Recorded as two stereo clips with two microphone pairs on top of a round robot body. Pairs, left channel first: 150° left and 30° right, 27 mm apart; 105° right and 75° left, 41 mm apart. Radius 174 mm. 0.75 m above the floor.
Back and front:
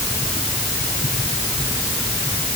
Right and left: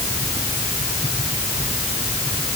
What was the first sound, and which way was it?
Only background noise.